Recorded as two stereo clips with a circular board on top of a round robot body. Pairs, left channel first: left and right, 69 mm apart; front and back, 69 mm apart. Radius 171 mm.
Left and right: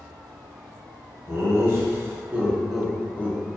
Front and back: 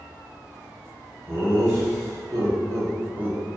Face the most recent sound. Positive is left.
turn(degrees=110)